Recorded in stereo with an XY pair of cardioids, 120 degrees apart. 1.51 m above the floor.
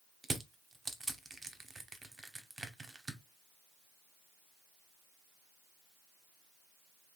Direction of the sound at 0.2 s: 20° right.